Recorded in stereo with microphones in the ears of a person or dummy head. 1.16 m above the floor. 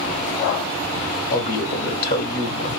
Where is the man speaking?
50° left (ahead or behind), 0.8 m.